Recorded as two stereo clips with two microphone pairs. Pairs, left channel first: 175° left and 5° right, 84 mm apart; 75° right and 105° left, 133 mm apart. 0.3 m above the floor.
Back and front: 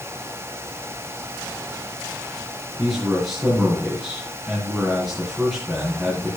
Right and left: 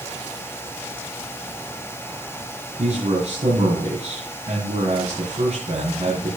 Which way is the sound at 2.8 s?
75° left.